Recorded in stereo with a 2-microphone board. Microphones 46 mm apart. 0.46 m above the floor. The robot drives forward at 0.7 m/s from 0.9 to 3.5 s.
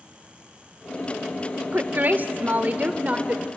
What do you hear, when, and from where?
1.7 s a woman speaking: 40° right (ahead or behind), 1.0 m; by 3.5 s 30° right (ahead or behind), 1.3 m